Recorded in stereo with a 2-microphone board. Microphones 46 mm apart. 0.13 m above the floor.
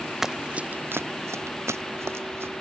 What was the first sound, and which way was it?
Running footsteps, 10° right (ahead or behind).